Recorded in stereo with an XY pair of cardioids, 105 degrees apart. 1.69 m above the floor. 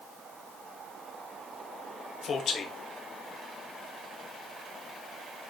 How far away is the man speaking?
About 1.4 m.